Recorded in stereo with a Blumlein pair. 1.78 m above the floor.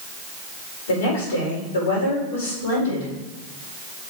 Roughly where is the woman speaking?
Ahead left.